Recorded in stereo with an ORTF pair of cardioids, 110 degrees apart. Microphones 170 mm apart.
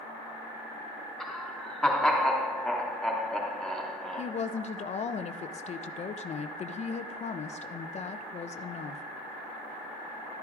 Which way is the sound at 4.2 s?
40° left.